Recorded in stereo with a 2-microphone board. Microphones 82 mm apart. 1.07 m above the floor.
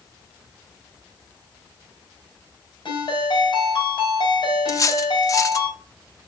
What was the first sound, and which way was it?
A ringtone, 65° left (ahead or behind).